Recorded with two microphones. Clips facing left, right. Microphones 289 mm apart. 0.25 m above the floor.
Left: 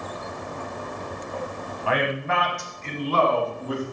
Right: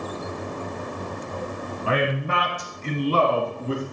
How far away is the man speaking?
About 1.2 m.